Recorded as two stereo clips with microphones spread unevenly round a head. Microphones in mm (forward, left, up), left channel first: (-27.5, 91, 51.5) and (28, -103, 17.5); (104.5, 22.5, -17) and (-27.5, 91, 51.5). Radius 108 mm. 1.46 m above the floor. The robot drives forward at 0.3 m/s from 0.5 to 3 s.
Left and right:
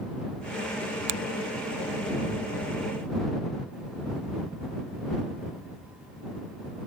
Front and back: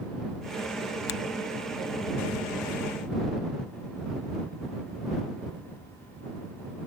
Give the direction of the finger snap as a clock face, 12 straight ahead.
2 o'clock.